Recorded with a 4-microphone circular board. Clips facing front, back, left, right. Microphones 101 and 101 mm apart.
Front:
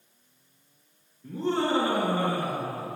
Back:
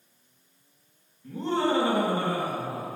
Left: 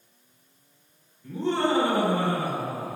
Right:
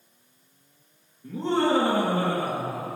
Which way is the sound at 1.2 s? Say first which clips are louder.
Back 1 dB, right 1 dB; 30° right.